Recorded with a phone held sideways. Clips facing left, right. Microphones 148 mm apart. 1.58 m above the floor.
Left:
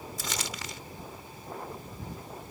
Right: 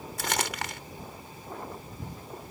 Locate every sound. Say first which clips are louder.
0.2 s crumpling: right 8 dB; 65° right (ahead or behind)